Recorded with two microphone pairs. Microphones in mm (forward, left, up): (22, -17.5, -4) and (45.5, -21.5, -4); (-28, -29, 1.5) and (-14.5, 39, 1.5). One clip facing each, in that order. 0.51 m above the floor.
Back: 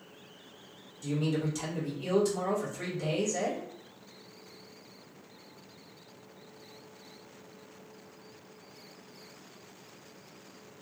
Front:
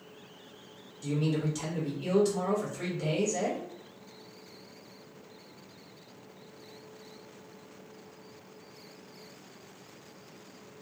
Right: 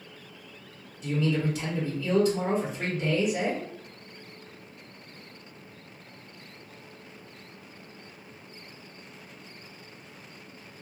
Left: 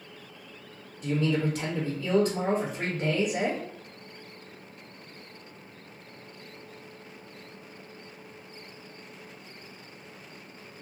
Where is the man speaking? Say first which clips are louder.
Front 1 dB, even; 60° left, 1.6 m.